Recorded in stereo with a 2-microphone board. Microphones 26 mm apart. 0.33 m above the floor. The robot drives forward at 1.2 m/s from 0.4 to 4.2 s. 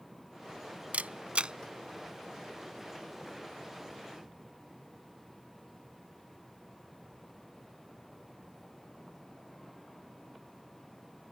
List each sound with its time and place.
0.9 s a camera shutter: 70° right (ahead or behind); by 1.5 s 45° right (ahead or behind)